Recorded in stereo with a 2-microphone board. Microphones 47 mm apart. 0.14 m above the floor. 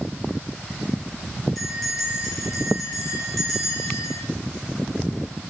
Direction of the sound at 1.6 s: 5° left (ahead or behind).